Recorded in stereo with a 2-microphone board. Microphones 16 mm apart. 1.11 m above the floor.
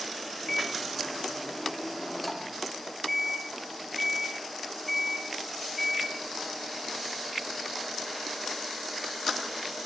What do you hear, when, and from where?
0.5 s a microwave: 10° left (ahead or behind), 2.5 m